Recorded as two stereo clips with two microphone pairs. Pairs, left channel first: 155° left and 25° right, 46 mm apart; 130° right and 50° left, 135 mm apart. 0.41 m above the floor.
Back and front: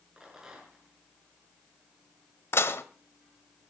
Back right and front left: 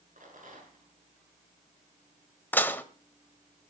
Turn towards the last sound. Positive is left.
turn(degrees=160)